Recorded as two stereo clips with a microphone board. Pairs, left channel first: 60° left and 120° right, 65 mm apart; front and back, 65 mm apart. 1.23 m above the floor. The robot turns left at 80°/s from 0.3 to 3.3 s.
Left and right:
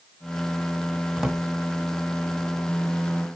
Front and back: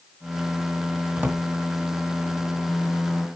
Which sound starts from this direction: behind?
A drawer, at 1.2 s.